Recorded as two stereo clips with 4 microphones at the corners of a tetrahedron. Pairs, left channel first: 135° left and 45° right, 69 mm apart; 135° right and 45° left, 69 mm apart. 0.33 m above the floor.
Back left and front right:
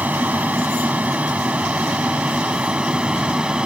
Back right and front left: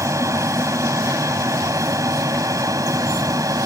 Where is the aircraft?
15° left; by 3.7 s 30° left.